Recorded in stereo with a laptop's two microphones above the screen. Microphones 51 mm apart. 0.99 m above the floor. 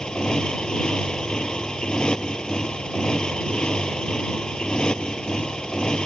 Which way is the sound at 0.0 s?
15° left (ahead or behind).